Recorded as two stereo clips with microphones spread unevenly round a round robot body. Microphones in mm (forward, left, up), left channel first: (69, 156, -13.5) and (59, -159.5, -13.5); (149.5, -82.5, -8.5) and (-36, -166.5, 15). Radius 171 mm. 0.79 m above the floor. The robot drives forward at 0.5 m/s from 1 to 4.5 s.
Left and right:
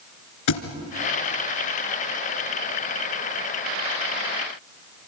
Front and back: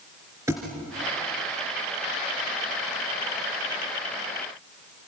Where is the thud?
125° left, 2.0 m.